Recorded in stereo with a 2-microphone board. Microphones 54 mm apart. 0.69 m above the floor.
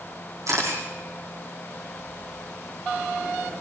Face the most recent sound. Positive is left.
turn(degrees=-80)